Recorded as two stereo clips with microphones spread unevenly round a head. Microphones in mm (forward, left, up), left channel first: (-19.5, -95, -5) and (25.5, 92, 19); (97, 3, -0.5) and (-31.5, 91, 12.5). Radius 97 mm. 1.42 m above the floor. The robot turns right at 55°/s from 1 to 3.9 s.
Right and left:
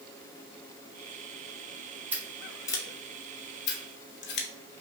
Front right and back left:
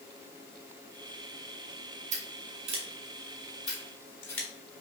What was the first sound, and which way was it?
Scissors, 150° left.